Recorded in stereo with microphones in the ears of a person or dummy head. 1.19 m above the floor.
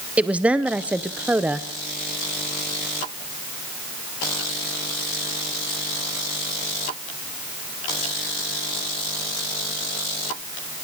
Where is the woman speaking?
5° right (ahead or behind), 0.6 m.